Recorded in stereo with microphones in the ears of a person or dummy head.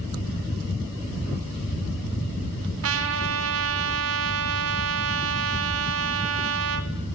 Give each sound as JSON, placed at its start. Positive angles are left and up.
{"t": 2.8, "sound": "a trumpet", "side_deg": -75, "distance_m": 4.0}